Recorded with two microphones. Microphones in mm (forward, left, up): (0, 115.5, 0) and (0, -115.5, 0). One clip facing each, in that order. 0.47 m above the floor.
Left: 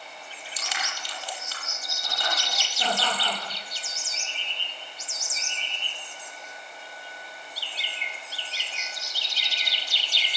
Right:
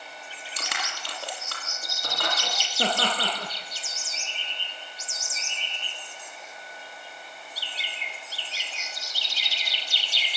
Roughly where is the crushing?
Right.